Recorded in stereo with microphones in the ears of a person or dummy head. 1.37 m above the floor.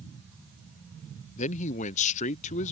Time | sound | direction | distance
1.4 | a man speaking | 35° left (ahead or behind) | ?